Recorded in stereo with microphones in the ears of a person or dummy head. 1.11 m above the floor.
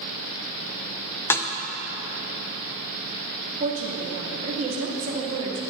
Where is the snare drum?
10° left (ahead or behind), 0.6 m.